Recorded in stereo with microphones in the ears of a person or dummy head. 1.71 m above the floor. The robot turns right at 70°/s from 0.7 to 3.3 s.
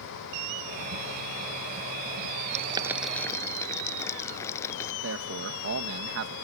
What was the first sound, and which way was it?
Boiling, 40° right (ahead or behind).